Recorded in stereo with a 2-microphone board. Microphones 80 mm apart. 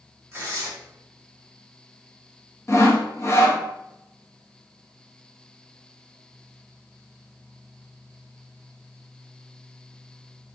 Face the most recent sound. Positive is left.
turn(degrees=35)  # may be behind; listen again after turning